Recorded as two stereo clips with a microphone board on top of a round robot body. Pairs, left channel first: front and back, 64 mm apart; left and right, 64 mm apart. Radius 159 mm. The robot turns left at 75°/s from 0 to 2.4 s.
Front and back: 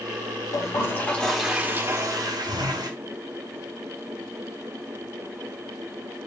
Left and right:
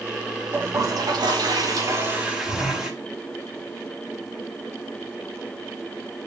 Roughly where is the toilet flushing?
Ahead right.